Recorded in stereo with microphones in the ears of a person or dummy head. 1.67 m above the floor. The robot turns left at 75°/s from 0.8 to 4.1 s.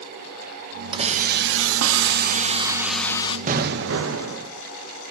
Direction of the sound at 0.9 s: 25° right.